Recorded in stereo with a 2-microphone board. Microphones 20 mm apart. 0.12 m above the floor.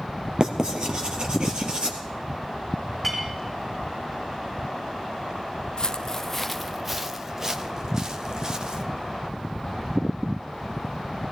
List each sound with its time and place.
0.4 s writing: 40° right (ahead or behind), 2.5 m
3.0 s a clink: 5° right (ahead or behind), 4.5 m
5.8 s footsteps: 40° left (ahead or behind), 0.5 m; by 8.8 s 40° right (ahead or behind), 1.6 m